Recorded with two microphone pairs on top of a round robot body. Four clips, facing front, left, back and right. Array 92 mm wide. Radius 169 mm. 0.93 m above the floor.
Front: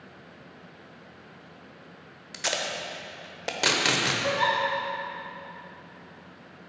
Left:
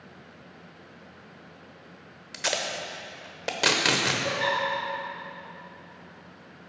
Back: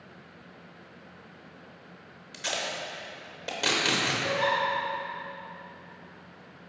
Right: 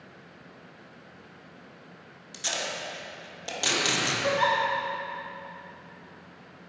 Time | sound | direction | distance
2.3 | tape being pulled | 55° left | 1.0 m
4.2 | a giggle | 50° right | 0.6 m